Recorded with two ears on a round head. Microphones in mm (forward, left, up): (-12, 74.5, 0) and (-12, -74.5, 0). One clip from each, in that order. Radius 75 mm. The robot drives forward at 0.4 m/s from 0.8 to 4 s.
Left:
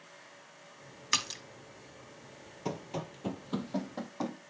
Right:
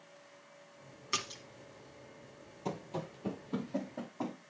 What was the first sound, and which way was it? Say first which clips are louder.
A splash: left 5 dB; 40° left (ahead or behind).